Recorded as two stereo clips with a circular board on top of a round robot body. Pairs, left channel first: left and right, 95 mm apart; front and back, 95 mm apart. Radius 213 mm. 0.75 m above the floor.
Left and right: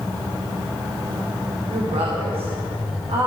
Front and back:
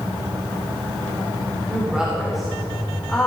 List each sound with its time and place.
1.7 s a woman speaking: 105° right, 3 m; by 3.3 s 80° right, 3 m